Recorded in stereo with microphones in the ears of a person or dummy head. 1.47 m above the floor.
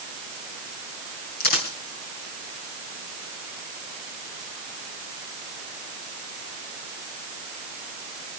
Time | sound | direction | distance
1.4 | a dropped coin | 45° left (ahead or behind) | 3 m